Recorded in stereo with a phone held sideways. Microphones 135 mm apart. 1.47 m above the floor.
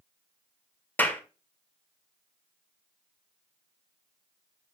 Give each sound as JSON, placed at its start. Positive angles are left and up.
{"t": 1.0, "sound": "a clap", "side_deg": 15, "distance_m": 1.3}